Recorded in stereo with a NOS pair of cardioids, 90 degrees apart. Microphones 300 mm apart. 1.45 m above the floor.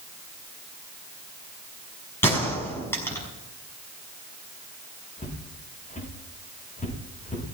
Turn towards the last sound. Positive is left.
turn(degrees=25)